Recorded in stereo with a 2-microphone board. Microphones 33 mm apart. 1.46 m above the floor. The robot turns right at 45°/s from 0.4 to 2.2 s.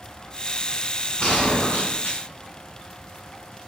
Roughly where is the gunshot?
Ahead left.